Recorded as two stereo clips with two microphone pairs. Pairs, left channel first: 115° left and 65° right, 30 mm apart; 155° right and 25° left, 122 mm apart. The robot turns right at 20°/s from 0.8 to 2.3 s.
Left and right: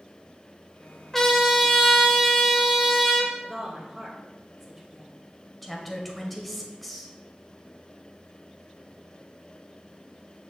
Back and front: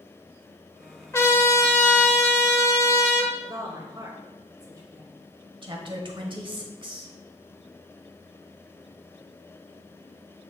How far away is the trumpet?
About 1.1 m.